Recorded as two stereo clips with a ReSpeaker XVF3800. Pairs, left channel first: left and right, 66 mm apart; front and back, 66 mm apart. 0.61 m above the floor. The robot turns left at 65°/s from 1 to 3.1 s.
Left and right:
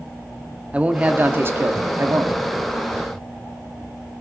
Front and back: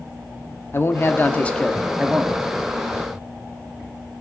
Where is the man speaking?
30° right, 0.7 m; by 2.4 s 120° right, 0.7 m.